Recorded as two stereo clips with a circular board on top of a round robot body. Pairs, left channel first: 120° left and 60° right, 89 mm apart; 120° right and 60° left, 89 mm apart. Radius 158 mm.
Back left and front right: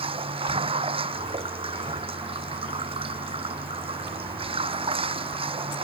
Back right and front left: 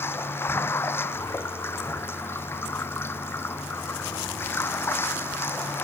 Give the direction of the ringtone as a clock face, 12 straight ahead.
No ringtone in this recording.